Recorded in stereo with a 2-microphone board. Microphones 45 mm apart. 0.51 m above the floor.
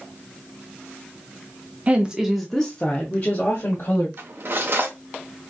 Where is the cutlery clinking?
55° right (ahead or behind), 0.7 m.